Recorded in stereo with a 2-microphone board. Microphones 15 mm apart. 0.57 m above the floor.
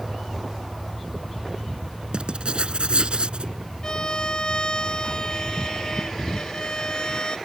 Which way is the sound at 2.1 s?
70° right (ahead or behind).